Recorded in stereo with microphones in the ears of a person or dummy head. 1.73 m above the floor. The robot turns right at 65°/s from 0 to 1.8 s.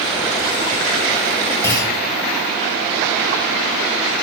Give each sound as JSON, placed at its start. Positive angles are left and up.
{"t": 1.6, "sound": "a clunk", "side_deg": 10, "distance_m": 1.0}